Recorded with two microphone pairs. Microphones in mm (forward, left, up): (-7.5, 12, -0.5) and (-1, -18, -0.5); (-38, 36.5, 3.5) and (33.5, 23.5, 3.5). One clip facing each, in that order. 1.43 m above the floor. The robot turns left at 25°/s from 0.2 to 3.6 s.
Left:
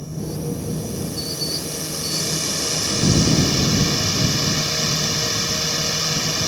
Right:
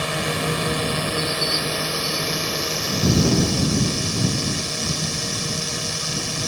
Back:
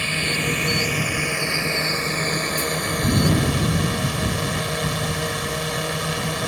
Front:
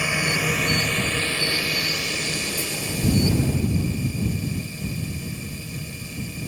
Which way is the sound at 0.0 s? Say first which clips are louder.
Right 6 dB, front 1 dB; 85° right.